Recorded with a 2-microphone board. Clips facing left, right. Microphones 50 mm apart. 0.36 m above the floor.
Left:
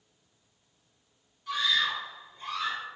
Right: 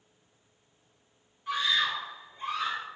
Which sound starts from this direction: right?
A scream, at 1.5 s.